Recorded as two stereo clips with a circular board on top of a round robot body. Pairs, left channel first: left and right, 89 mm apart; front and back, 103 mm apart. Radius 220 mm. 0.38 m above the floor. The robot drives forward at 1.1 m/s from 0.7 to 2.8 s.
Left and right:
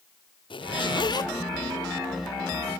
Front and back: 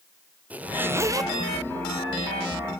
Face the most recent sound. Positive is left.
turn(degrees=155)